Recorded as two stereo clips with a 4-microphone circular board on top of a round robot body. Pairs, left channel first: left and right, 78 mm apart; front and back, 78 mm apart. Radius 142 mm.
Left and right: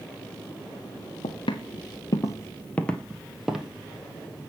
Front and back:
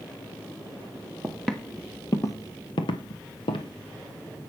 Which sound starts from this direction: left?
Footsteps, at 1.2 s.